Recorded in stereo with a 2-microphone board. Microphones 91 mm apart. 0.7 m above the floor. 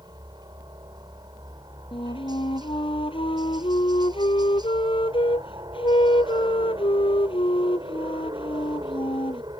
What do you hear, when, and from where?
0.0 s a helicopter: 50° right (ahead or behind)
1.9 s a flute: 75° left (ahead or behind)